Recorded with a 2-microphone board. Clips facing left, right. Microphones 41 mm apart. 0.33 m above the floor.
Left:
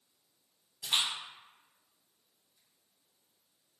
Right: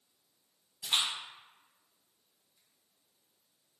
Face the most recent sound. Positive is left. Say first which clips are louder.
# even
turn(degrees=0)  # may be behind; listen again after turning